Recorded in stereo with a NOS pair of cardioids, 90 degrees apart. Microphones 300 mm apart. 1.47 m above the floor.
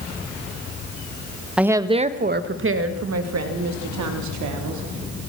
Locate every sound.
1.6 s a woman speaking: 5° right, 1.6 m; by 4.8 s 75° right, 4 m